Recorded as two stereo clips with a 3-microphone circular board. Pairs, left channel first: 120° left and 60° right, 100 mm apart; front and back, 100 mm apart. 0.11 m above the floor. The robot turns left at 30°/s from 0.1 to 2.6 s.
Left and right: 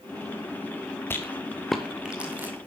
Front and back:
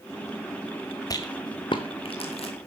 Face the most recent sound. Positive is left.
turn(degrees=5)